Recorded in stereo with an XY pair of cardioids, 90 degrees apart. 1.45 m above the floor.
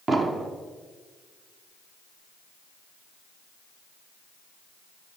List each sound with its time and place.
0.1 s an explosion: 45° right, 0.9 m